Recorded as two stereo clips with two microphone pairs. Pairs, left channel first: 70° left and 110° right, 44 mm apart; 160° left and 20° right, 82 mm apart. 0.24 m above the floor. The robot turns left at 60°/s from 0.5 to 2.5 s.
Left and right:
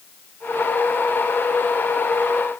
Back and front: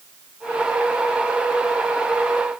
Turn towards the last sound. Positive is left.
No sound to turn to.